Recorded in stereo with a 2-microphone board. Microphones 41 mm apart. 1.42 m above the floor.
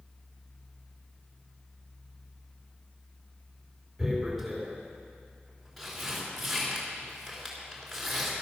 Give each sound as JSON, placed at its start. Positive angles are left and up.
{"t": 4.0, "sound": "tearing paper", "side_deg": 5, "distance_m": 3.5}